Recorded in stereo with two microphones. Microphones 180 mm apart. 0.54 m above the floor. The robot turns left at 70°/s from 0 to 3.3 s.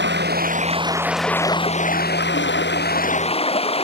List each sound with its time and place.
0.0 s running water: 95° right; by 3.9 s 35° left